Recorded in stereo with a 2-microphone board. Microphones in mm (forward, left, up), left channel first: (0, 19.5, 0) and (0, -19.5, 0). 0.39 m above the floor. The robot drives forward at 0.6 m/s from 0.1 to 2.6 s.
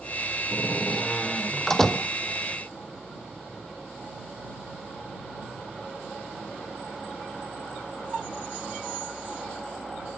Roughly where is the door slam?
Centre.